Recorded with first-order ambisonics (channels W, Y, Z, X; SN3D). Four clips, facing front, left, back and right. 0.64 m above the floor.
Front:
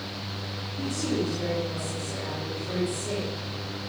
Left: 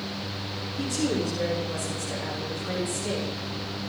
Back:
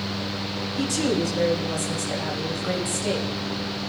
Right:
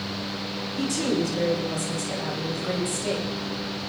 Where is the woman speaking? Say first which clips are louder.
Right 2 dB, back 5 dB; 150° right, 3.5 m.